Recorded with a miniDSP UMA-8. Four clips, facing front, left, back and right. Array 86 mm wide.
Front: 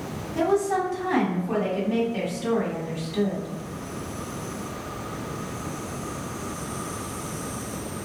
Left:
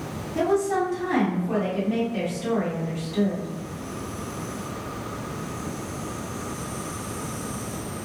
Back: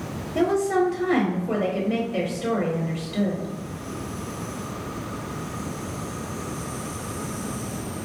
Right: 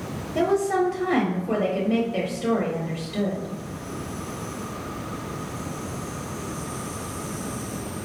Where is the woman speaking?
160° right, 1.6 m.